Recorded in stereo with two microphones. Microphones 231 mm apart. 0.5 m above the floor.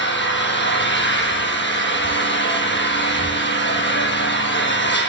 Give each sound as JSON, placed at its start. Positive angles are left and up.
{"t": 0.0, "sound": "an engine running", "side_deg": 50, "distance_m": 9.0}